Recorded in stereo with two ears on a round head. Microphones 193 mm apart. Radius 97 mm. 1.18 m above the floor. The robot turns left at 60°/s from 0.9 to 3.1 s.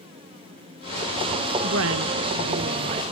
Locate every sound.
1.6 s a woman speaking: 60° right, 1.2 m; by 3.1 s 150° right, 1.2 m